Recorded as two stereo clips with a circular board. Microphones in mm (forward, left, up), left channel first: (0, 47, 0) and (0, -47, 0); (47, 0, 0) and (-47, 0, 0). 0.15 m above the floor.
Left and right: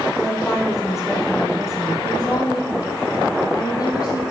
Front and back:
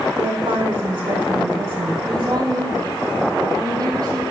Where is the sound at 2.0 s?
135° left, 4.5 m.